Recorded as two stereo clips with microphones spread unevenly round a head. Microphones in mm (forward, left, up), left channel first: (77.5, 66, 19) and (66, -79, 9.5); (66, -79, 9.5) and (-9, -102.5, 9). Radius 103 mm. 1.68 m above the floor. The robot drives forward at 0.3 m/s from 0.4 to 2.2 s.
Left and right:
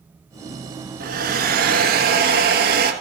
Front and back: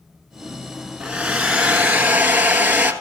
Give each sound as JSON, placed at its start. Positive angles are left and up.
{"t": 1.0, "sound": "a hair dryer", "azimuth_deg": -85, "distance_m": 1.5}